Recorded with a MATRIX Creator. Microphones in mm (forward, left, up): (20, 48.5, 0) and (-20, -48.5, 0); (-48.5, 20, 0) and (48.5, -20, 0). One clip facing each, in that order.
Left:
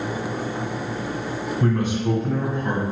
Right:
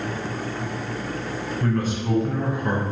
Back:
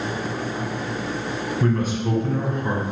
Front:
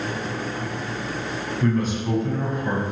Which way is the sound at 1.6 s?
130° left.